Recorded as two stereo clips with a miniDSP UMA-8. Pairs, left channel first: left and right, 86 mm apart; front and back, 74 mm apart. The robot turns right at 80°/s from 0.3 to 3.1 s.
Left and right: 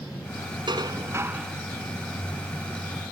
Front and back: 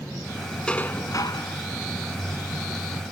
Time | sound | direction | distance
0.7 | dishes clattering | 75° right | ?